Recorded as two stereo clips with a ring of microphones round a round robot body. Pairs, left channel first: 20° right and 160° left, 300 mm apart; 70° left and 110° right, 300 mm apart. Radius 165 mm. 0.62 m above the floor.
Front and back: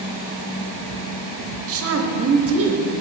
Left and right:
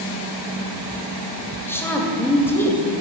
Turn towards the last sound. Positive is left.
turn(degrees=150)